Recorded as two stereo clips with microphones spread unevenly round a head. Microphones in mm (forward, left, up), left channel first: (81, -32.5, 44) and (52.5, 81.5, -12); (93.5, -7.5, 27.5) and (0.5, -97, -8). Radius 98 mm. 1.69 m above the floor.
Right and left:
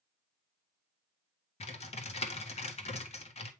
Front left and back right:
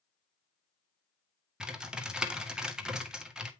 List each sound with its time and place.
1.6 s typing on a keyboard: 50° right, 1.8 m